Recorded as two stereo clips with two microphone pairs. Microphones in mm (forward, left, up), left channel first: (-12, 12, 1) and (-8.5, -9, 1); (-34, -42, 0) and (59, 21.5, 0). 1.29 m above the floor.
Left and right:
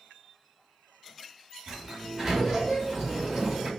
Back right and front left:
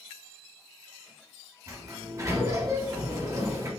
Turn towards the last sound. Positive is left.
turn(degrees=-5)